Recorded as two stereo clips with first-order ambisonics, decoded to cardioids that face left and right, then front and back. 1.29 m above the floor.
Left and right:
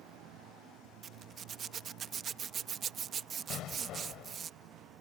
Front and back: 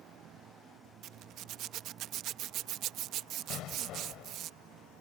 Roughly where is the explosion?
Ahead left.